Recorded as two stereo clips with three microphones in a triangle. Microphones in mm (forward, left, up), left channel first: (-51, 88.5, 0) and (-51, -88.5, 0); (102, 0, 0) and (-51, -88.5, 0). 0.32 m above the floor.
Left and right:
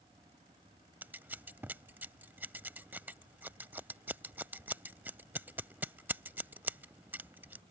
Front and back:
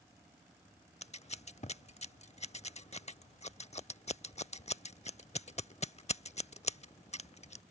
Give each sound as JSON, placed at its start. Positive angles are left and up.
{"t": 1.0, "sound": "scissors", "azimuth_deg": -15}